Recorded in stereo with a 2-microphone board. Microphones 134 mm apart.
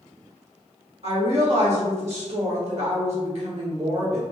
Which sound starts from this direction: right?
A woman speaking, at 1.0 s.